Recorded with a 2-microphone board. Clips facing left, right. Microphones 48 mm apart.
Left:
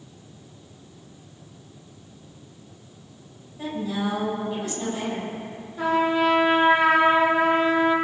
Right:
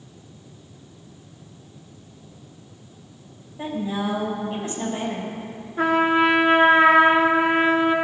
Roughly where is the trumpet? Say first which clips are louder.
Right 3 dB; right.